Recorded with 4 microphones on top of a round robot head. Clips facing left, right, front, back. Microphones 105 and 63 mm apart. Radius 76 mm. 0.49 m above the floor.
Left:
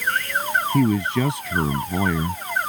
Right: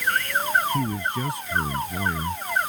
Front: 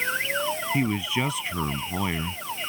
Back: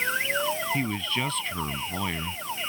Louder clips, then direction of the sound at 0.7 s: Left 7 dB, front 3 dB; 80° left.